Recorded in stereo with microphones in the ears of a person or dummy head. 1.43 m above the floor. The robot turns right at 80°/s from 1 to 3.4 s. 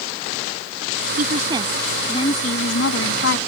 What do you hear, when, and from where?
1.2 s a woman speaking: 55° right; by 3.4 s 120° left